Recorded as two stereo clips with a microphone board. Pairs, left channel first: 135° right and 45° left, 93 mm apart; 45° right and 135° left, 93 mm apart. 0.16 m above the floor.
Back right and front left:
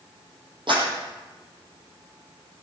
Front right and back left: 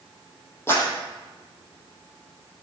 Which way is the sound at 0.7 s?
20° left.